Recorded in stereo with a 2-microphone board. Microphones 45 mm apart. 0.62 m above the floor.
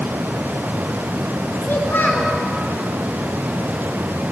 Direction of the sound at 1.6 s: 55° left (ahead or behind).